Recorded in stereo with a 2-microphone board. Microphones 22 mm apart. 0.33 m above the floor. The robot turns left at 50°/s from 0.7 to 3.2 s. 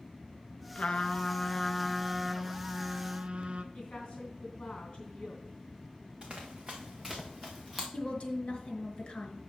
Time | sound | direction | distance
0.8 | a trumpet | 60° left | 0.6 m
3.7 | a woman speaking | 45° left (ahead or behind) | 3 m
6.2 | running footsteps | 40° right (ahead or behind) | 1.7 m
7.9 | a woman speaking | 50° left (ahead or behind) | 1.8 m